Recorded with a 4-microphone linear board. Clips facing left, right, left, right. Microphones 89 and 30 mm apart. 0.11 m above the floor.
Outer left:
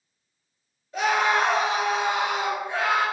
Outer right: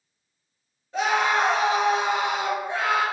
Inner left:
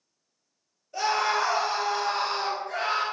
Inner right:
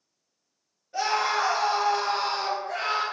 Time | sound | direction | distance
0.9 | a scream | 30° right (ahead or behind) | 1.5 m